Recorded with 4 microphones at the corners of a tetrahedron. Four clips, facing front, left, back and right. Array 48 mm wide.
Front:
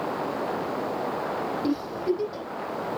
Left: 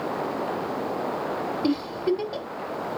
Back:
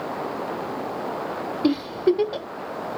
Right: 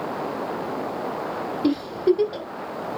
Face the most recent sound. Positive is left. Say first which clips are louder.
# right 5 dB, back 8 dB
turn(degrees=-175)